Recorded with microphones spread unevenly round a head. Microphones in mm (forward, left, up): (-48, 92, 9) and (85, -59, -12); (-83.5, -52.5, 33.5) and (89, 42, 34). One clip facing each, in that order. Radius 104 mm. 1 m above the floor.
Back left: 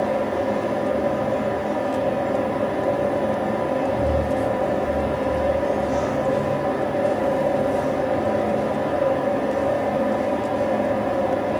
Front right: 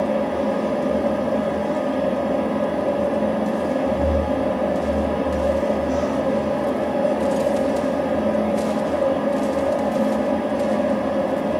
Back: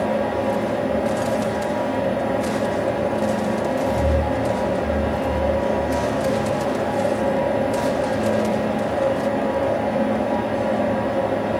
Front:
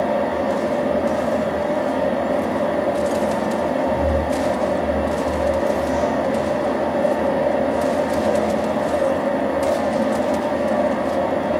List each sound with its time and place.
0.0 s a fan: 60° right, 1.5 m